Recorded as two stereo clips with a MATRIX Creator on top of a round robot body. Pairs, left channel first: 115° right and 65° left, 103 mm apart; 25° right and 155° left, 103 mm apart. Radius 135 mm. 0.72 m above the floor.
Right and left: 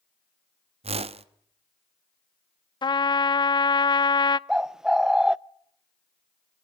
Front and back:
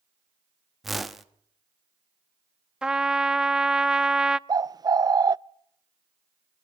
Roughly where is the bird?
Behind left.